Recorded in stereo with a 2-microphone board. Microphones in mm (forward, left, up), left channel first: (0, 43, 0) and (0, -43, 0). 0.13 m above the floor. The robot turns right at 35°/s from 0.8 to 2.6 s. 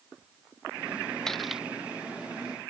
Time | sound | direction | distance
1.3 | cutlery clinking | 5° left (ahead or behind) | ?